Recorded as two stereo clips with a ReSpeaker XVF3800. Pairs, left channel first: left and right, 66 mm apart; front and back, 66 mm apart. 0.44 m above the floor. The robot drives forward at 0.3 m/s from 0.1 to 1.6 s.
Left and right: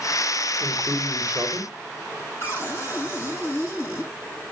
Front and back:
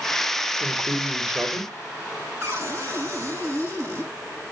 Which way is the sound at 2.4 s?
145° left.